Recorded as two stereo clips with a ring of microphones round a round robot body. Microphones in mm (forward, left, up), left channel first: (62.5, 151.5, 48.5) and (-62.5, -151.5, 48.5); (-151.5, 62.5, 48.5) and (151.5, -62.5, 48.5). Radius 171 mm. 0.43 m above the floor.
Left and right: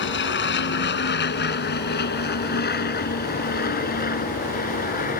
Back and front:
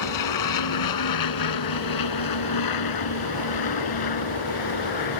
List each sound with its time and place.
0.0 s an aircraft: 125° left; by 5.2 s 135° left